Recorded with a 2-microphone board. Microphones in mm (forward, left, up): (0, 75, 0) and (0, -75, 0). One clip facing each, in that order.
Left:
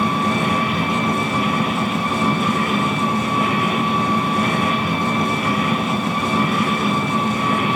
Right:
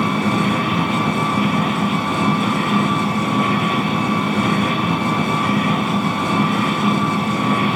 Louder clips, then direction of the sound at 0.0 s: Right 1 dB; 70° right (ahead or behind).